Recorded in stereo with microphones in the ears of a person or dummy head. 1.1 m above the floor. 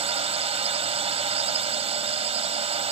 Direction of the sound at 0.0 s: 35° right (ahead or behind).